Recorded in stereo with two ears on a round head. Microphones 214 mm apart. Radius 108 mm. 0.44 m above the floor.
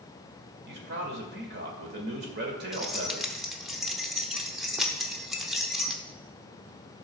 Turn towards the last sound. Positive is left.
turn(degrees=0)  # may be behind; listen again after turning